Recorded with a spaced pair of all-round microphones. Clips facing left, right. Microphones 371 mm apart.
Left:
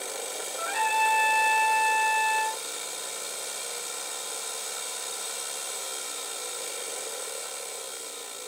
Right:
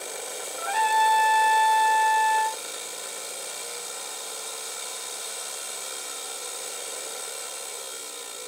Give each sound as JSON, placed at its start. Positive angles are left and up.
{"t": 0.6, "sound": "a trumpet", "side_deg": 5, "distance_m": 0.8}